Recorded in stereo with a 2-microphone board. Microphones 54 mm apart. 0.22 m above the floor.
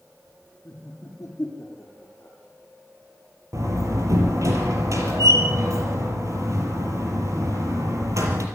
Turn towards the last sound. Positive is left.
turn(degrees=-65)  # may be behind; listen again after turning